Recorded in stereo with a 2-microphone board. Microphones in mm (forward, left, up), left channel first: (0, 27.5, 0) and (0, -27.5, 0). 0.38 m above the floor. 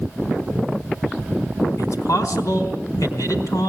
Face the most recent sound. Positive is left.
turn(degrees=70)  # may be behind; listen again after turning